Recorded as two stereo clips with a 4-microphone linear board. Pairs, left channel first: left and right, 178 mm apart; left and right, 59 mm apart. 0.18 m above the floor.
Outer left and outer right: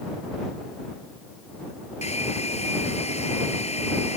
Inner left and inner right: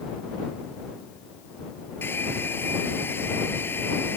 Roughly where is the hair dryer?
Left.